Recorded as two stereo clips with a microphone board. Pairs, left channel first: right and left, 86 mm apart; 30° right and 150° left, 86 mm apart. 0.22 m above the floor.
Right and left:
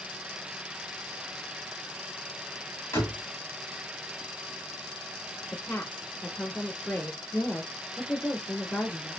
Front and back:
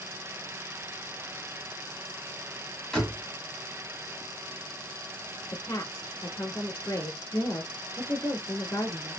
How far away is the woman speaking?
About 1.4 m.